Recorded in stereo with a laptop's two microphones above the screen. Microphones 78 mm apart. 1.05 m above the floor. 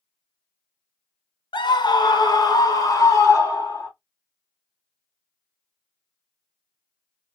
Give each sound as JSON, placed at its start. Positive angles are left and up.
{"t": 1.5, "sound": "a scream", "side_deg": 75, "distance_m": 0.8}